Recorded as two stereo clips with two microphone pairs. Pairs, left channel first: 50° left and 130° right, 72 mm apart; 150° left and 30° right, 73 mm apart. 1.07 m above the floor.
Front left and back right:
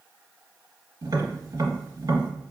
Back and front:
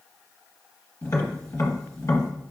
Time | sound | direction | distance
1.0 | tapping | 160° right | 1.1 m